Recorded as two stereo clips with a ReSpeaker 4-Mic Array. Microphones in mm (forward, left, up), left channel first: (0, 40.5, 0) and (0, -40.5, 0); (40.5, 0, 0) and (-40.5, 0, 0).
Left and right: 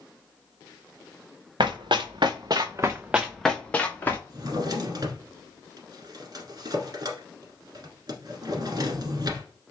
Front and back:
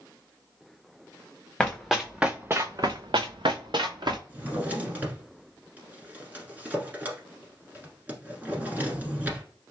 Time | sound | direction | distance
1.6 | running footsteps | 85° right | 1.3 m
4.3 | a drawer | 115° right | 1.3 m